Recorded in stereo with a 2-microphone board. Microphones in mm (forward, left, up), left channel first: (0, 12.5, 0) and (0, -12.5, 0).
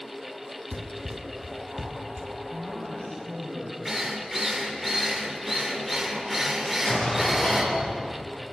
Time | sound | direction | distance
0.7 | running footsteps | 35° right (ahead or behind) | 2.5 m
2.5 | a man speaking | 50° left (ahead or behind) | 10 m
3.9 | a drill | 5° right (ahead or behind) | 3.5 m
6.6 | an explosion | 65° left (ahead or behind) | 9.5 m